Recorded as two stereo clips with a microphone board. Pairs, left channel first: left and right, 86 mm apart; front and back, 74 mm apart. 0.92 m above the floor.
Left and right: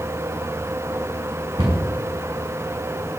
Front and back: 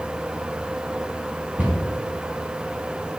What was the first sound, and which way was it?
A cupboard door, 105° right.